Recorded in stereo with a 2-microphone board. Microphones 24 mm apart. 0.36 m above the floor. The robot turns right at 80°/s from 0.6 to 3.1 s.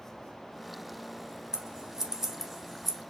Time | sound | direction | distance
1.5 | scissors | 25° right (ahead or behind) | 1.2 m